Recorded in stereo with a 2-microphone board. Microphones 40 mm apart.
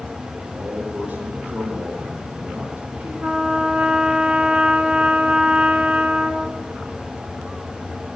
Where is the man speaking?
70° right (ahead or behind), 5 m.